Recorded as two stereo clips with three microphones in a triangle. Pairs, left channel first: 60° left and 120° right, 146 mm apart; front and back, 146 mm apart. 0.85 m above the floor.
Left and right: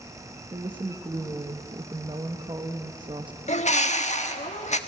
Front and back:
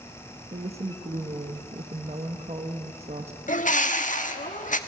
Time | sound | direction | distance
0.5 | a woman speaking | 160° right | 1.1 m
3.5 | a bird | 25° left | 1.4 m